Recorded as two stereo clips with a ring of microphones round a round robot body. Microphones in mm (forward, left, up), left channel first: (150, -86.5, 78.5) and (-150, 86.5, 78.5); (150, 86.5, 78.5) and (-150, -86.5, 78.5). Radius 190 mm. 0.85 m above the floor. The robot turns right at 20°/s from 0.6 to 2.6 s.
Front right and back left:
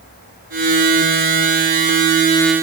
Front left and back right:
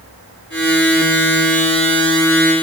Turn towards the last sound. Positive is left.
No sound to turn to.